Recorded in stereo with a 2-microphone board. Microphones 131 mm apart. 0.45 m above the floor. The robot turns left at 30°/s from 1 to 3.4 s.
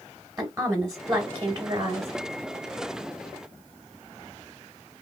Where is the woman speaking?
30° right, 1.3 m; by 2.1 s 60° right, 1.3 m.